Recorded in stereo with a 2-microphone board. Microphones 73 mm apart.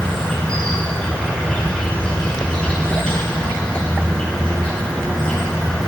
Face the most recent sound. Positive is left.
turn(degrees=15)  # may be behind; listen again after turning